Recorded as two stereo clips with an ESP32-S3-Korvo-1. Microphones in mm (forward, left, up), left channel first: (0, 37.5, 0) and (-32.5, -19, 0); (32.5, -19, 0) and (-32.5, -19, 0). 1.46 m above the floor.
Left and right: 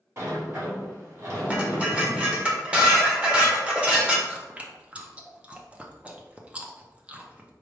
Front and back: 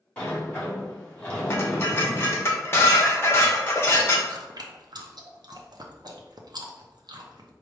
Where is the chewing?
165° left, 0.6 m.